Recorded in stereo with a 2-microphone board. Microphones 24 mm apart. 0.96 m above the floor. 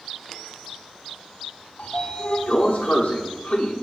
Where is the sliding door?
65° left (ahead or behind), 0.9 m.